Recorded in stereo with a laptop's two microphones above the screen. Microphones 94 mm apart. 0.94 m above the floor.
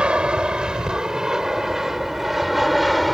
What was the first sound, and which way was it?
An aircraft, 10° right (ahead or behind).